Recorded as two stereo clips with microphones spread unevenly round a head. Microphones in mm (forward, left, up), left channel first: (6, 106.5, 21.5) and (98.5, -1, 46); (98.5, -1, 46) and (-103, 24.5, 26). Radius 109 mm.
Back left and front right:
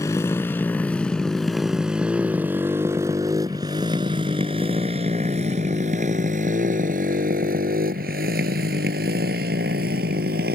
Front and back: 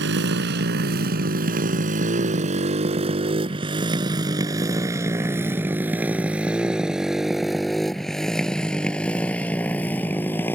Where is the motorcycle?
150° right; by 10.6 s 85° right.